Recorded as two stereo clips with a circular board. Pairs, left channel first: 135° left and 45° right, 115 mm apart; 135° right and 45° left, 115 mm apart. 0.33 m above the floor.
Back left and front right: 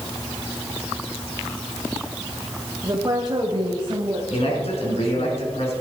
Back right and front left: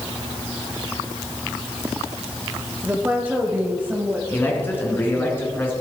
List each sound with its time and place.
2.8 s a woman speaking: 25° right, 1.5 m
4.3 s a man speaking: 155° left, 4 m